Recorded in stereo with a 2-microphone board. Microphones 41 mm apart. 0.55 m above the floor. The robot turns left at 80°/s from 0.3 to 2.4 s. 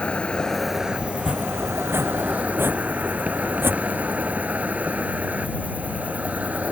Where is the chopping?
15° right (ahead or behind); by 4.4 s 65° right (ahead or behind).